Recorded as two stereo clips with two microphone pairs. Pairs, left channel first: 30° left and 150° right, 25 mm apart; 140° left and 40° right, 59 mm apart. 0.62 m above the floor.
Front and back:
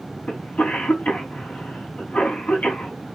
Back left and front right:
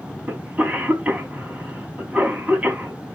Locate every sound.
0.3 s a cough: 30° left, 5 m